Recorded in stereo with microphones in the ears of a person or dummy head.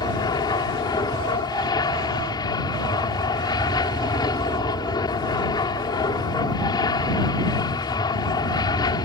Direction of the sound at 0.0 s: 20° left (ahead or behind).